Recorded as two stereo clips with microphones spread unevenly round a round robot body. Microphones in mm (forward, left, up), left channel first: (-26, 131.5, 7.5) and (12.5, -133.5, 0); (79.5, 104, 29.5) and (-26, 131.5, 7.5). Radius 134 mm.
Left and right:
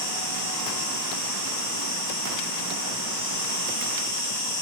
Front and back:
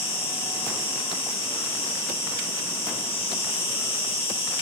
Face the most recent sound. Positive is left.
turn(degrees=20)